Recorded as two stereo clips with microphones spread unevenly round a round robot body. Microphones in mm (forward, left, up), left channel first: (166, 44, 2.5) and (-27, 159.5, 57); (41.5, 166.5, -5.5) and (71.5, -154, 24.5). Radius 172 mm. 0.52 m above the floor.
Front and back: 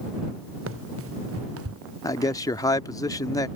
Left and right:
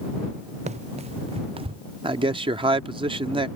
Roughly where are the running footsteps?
Behind right.